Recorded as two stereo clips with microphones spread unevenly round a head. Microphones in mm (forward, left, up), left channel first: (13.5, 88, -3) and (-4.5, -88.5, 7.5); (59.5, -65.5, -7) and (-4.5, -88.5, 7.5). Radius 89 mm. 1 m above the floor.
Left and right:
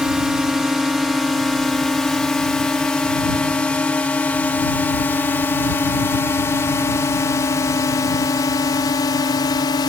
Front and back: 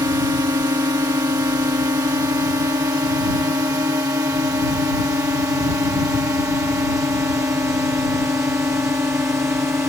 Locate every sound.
0.0 s a drone: 175° left; by 9.9 s 140° left